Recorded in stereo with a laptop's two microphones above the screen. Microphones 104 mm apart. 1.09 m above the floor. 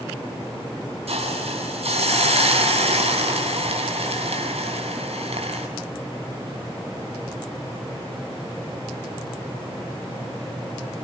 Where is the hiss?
75° right (ahead or behind), 7 m.